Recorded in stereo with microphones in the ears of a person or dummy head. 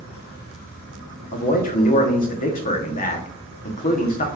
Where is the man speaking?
40° left (ahead or behind), 1.0 m.